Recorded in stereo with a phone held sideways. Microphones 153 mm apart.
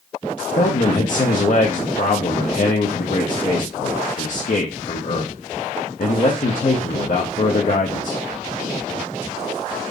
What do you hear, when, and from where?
0.6 s a man speaking: 55° left (ahead or behind), 0.6 m